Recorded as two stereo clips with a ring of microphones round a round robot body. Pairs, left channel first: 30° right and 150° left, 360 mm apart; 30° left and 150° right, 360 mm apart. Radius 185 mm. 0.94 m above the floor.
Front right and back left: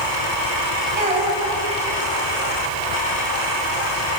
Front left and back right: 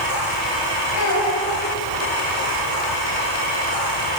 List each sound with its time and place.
0.9 s a child speaking: 75° left, 5 m